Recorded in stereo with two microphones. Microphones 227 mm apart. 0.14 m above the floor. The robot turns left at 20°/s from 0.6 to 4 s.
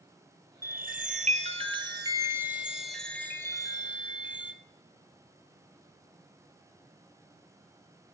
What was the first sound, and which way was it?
A chime, 135° right.